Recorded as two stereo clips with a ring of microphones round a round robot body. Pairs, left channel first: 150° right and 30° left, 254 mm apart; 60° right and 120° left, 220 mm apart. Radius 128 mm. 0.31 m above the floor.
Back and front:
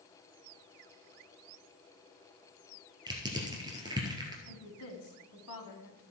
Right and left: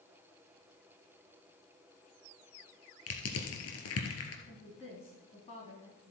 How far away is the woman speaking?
About 2 m.